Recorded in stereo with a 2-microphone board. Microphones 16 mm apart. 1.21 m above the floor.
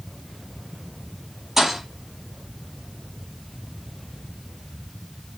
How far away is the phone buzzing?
No phone buzzing in this recording.